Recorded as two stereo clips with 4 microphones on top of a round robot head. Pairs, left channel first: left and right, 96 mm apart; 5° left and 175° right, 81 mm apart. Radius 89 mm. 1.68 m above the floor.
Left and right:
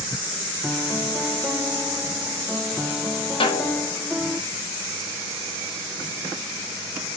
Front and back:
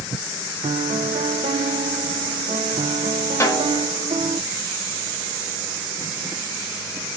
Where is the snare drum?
60° left, 3 m.